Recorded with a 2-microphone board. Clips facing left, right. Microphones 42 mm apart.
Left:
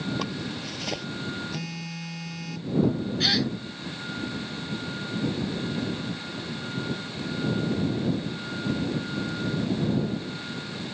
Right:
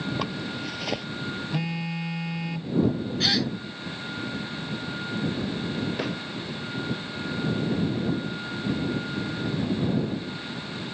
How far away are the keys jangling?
I don't hear keys jangling.